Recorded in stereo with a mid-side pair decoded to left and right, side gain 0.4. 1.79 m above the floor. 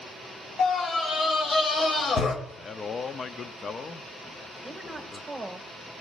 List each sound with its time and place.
0.6 s a scream: 60° left, 3 m
2.5 s a man speaking: 45° left, 0.8 m
4.6 s a woman speaking: 10° right, 2.5 m